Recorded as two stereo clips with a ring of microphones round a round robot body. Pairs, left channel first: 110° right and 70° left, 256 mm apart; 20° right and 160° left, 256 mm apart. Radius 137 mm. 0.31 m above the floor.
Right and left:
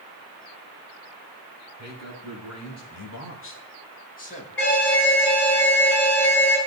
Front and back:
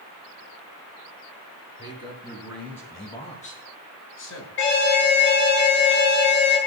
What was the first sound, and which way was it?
A man speaking, 125° right.